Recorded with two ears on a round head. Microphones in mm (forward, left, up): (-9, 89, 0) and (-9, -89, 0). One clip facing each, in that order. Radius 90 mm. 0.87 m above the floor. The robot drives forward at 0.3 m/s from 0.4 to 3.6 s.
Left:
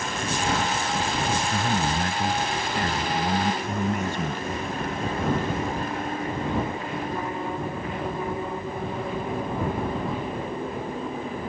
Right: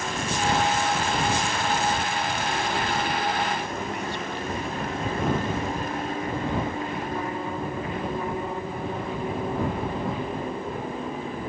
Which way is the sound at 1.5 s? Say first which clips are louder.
Even; 45° left (ahead or behind).